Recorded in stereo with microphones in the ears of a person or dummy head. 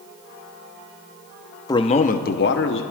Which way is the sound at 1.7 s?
15° left (ahead or behind).